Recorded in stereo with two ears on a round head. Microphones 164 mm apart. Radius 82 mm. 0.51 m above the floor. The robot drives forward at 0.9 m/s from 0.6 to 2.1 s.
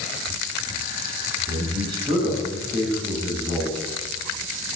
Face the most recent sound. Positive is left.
turn(degrees=-20)  # may be behind; listen again after turning